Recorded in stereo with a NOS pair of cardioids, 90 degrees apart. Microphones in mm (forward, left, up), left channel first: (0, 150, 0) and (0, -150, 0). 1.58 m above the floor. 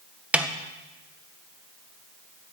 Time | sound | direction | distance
0.3 | a snare drum | 5° right | 1.7 m